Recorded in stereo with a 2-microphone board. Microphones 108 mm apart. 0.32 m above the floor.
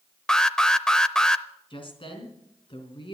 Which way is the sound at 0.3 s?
5° left (ahead or behind).